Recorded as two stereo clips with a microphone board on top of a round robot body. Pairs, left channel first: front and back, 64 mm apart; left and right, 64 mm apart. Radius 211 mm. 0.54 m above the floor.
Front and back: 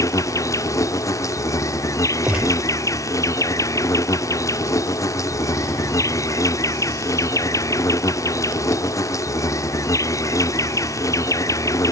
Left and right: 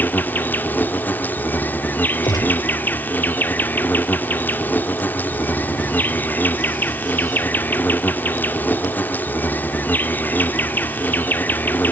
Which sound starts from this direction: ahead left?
An insect, at 0.0 s.